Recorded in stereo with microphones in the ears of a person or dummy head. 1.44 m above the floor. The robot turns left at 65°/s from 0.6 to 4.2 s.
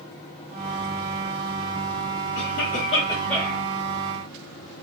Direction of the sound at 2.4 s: 70° left.